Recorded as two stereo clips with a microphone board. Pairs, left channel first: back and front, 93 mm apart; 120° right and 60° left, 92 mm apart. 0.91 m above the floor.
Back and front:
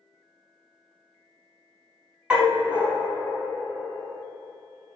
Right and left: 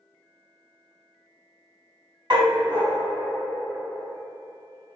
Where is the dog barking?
75° left, 1.1 m.